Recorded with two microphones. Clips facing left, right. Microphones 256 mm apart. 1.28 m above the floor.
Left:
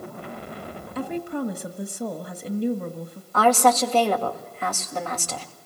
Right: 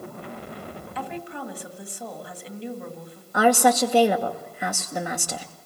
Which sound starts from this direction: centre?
A woman speaking, at 3.3 s.